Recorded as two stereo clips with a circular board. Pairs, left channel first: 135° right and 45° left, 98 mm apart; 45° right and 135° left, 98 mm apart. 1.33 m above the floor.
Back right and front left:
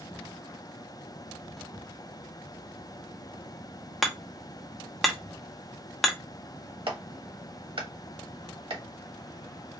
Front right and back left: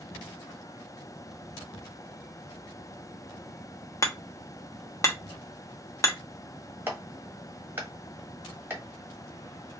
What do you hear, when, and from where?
4.0 s hammering: 50° right, 0.8 m
6.9 s a clap: 65° left, 1.3 m